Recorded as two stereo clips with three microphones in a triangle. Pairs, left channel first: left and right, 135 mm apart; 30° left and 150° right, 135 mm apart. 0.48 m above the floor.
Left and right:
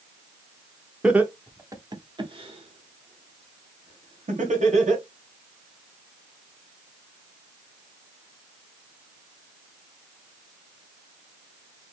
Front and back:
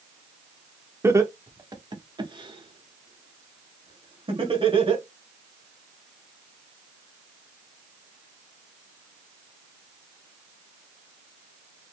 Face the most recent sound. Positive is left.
turn(degrees=-105)